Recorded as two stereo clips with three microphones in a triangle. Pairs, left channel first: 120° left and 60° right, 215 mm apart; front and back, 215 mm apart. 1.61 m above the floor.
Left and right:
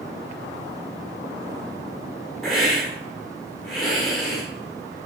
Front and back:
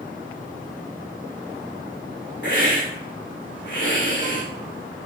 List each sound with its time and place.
2.4 s a hiss: 30° left, 5.5 m